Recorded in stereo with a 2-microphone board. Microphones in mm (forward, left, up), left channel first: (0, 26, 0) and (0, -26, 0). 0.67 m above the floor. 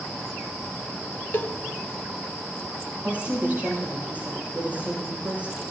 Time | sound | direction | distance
1.3 | a cowbell | 40° left (ahead or behind) | 0.6 m
3.0 | a woman speaking | 30° right (ahead or behind) | 7 m